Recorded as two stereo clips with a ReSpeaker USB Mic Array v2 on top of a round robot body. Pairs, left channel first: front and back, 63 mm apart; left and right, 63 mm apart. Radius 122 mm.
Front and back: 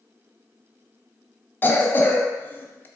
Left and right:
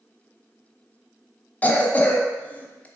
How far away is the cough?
About 0.8 m.